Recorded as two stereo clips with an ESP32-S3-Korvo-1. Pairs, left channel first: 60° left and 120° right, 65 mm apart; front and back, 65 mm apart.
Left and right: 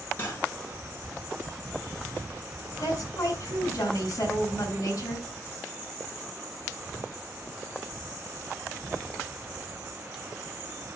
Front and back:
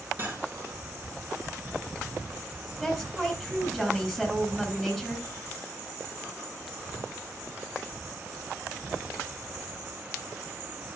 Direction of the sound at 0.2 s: 120° left.